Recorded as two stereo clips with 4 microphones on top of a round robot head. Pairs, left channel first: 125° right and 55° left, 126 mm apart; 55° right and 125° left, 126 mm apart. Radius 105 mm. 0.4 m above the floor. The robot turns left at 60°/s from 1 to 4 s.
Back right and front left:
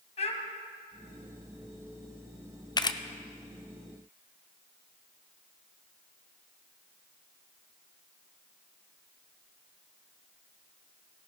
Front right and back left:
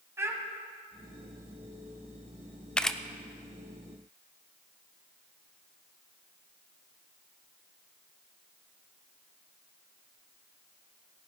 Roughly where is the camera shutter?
Behind right.